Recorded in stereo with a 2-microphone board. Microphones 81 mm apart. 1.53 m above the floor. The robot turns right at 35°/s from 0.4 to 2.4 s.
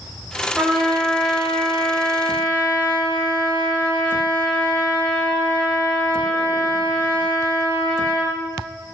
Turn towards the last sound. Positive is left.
turn(degrees=40)